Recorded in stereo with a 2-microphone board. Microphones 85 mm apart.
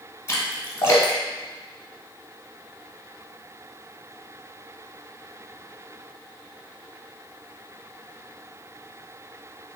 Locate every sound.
0.3 s a splash: 30° left (ahead or behind), 1.0 m